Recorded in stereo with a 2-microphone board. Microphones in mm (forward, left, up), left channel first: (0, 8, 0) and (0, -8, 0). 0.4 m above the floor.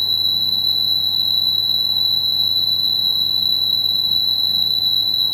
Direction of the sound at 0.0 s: 15° left (ahead or behind).